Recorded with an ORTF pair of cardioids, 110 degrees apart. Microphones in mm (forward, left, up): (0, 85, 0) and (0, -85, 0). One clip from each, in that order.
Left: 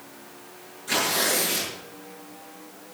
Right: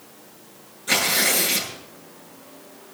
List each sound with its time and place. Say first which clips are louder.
0.9 s tearing paper: right 3 dB; 35° right, 9 m